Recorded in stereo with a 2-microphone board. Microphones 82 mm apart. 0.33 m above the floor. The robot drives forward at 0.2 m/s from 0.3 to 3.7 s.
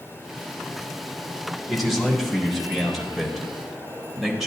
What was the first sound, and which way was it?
A man speaking, centre (ahead or behind).